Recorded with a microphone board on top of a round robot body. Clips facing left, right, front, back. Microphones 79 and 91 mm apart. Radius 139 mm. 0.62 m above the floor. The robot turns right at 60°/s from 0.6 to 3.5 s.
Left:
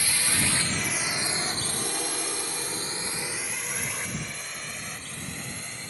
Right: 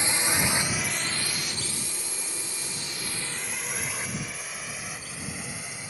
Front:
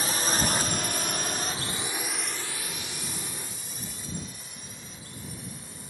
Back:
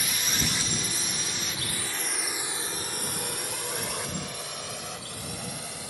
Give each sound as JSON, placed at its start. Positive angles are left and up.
{"t": 0.0, "sound": "a drone", "azimuth_deg": -35}